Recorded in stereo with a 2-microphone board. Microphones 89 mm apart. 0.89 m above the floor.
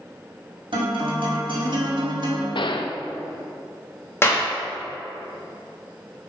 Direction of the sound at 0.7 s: 65° right (ahead or behind).